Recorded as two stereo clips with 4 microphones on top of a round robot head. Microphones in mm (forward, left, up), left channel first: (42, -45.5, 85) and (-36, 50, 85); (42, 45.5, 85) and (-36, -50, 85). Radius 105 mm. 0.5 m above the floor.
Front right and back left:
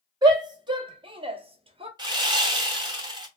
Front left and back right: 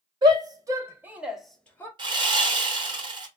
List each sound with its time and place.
0.2 s a shout: straight behind, 1.9 m; by 1.9 s 115° left, 1.2 m
2.0 s sawing: straight behind, 1.3 m